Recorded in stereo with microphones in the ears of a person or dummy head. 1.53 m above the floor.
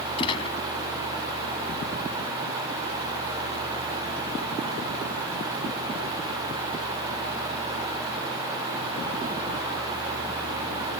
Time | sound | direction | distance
0.2 | a gunshot | 20° left (ahead or behind) | ?